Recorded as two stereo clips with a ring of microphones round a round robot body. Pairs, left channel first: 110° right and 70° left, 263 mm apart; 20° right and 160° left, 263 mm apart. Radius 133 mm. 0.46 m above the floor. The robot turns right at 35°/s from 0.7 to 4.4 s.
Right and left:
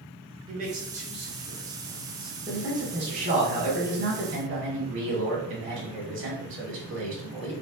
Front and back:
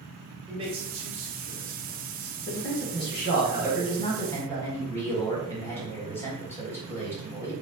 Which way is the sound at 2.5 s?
10° right.